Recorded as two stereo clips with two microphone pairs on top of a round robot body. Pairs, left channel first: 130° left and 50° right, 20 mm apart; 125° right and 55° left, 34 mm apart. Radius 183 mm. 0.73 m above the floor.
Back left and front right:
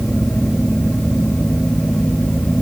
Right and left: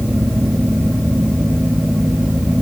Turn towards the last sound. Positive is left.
No sound to turn to.